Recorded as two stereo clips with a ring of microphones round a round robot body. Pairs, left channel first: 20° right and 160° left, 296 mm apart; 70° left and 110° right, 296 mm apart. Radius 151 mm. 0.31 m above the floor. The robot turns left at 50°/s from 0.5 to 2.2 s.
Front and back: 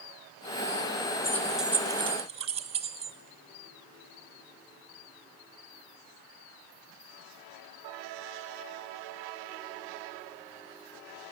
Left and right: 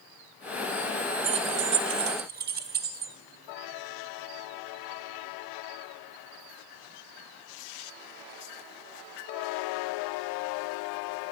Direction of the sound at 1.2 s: 100° right.